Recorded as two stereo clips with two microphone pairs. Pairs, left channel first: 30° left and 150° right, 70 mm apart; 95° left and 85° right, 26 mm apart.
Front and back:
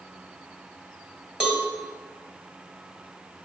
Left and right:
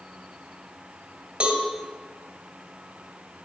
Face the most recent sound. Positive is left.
turn(degrees=-70)